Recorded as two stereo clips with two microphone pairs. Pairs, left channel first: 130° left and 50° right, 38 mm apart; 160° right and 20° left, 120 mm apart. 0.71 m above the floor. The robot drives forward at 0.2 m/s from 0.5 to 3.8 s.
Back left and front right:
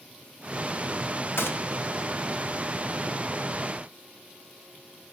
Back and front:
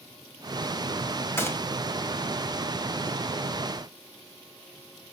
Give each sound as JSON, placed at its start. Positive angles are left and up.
{"t": 1.4, "sound": "a gunshot", "azimuth_deg": 130, "distance_m": 1.3}